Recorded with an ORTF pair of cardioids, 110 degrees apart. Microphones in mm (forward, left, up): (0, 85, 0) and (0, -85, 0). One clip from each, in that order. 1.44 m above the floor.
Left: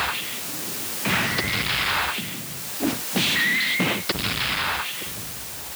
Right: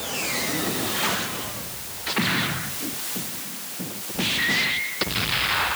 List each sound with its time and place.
Only background noise.